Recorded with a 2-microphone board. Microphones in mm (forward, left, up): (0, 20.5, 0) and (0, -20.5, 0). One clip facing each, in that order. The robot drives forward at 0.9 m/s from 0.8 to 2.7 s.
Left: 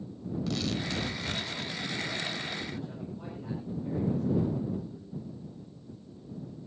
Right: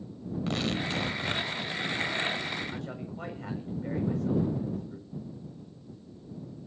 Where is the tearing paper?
35° right (ahead or behind), 0.9 m; by 1.7 s 25° right (ahead or behind), 1.4 m.